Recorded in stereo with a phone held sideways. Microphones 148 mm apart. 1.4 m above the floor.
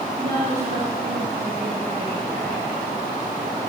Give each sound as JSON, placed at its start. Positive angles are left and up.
{"t": 0.2, "sound": "a woman speaking", "side_deg": -85, "distance_m": 3.0}